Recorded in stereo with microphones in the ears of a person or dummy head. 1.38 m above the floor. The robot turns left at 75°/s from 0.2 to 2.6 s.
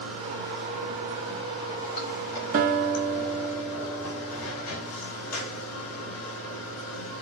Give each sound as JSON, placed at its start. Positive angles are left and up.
{"t": 0.0, "sound": "running water", "azimuth_deg": -95, "distance_m": 2.5}
{"t": 2.5, "sound": "a guitar", "side_deg": -35, "distance_m": 1.1}